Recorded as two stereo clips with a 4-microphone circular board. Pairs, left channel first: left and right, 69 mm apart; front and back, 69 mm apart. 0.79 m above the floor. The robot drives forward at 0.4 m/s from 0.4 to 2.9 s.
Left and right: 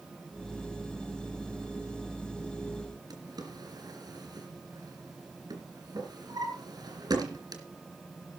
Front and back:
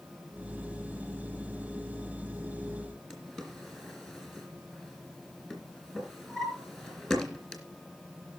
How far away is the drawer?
About 3.5 m.